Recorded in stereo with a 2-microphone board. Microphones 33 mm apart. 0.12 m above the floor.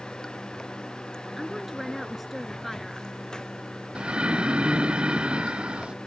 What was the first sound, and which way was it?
Running water, 25° left (ahead or behind).